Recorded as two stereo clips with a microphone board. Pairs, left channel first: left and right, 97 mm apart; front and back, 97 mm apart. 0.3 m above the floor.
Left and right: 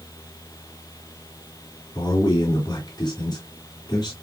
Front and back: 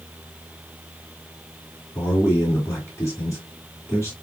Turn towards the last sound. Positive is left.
turn(degrees=55)